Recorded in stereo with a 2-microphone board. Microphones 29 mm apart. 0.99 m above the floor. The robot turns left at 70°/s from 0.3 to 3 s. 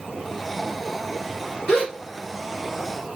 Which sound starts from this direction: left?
A gasp, at 1.7 s.